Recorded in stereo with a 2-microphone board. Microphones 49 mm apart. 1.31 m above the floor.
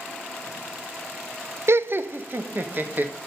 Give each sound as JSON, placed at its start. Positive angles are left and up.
{"t": 1.7, "sound": "laughter", "side_deg": -60, "distance_m": 0.7}